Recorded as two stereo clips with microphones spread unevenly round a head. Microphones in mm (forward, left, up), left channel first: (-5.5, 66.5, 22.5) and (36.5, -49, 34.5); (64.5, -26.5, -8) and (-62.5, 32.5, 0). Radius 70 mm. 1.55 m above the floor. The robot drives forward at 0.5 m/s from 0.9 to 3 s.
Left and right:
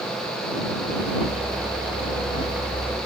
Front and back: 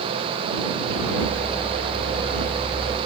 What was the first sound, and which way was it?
Only background noise.